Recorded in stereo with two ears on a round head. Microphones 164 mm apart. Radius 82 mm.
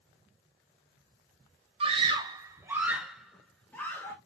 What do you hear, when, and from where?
1.8 s a scream: 35° right (ahead or behind), 1.3 m; by 4.2 s 15° left (ahead or behind), 1.5 m